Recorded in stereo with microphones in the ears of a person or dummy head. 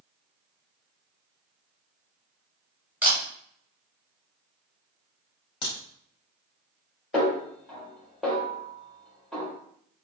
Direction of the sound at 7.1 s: 10° left (ahead or behind).